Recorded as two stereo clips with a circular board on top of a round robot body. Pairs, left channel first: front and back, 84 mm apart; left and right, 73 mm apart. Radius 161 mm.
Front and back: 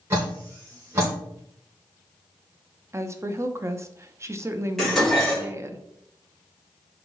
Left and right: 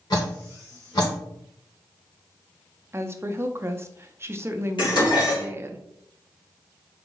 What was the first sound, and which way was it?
Dripping, 120° left.